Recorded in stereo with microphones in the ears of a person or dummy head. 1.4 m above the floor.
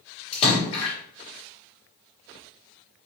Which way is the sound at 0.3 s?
30° left (ahead or behind).